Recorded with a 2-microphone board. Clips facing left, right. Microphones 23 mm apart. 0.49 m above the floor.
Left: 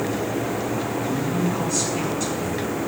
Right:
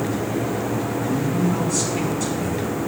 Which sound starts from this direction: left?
A man speaking, at 1.1 s.